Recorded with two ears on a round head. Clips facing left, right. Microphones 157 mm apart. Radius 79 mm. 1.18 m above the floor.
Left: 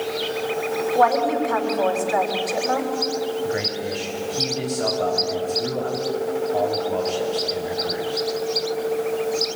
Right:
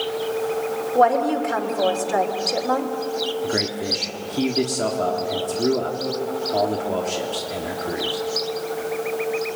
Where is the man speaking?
55° right (ahead or behind), 3 m.